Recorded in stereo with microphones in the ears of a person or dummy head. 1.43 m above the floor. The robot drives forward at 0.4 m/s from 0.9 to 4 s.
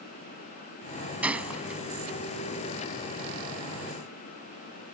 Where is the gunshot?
5° right (ahead or behind).